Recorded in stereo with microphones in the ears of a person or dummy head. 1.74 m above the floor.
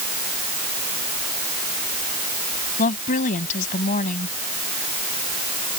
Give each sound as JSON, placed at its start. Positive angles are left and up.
{"t": 2.8, "sound": "a woman speaking", "side_deg": 40}